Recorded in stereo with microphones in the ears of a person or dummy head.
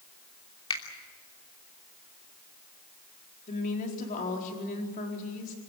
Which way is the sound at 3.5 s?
40° left (ahead or behind).